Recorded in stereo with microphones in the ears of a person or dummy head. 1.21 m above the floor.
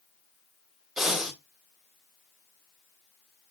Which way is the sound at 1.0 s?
5° right (ahead or behind).